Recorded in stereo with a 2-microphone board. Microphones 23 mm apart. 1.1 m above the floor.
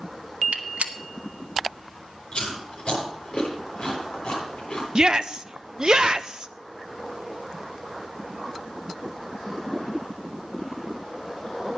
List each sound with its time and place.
0.5 s a gunshot: 85° right, 1.2 m
2.3 s chewing: 60° left (ahead or behind), 7.5 m
5.0 s a shout: 40° right (ahead or behind), 0.7 m